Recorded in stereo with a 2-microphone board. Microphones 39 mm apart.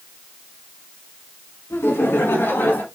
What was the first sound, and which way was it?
Laughter, 80° left.